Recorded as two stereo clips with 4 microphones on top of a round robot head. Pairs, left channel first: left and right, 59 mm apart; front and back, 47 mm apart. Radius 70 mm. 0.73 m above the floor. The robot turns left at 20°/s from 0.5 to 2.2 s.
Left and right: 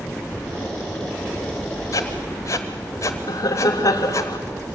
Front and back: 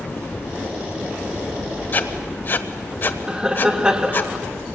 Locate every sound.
1.9 s writing: 50° left, 1.1 m; by 4.3 s 45° left, 1.1 m
3.3 s laughter: 105° left, 1.8 m